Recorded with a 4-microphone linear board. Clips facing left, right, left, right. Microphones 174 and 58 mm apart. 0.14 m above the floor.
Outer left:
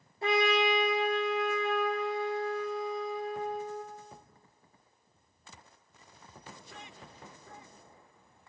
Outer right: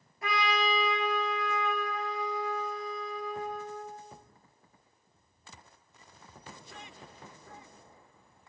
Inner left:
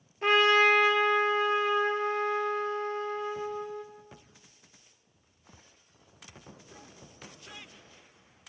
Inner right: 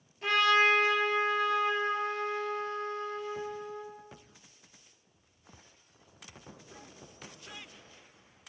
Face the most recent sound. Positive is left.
turn(degrees=30)  # may be behind; listen again after turning